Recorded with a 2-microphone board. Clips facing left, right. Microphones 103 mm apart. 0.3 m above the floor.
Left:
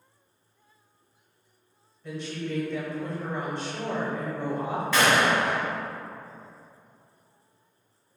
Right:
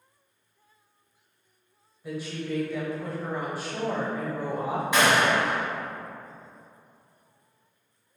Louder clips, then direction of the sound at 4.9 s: Even; 15° right (ahead or behind).